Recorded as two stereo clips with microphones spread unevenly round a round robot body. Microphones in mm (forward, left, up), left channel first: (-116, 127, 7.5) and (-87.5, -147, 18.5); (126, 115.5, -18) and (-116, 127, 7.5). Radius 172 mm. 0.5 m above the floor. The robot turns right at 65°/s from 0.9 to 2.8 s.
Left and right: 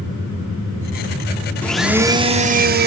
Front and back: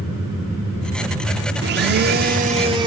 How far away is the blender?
About 0.5 m.